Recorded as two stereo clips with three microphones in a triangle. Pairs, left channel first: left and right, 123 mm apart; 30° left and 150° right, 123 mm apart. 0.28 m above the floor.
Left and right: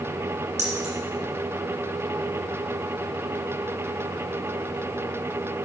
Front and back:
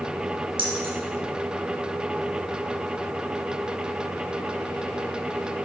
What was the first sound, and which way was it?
Keys jangling, 105° right.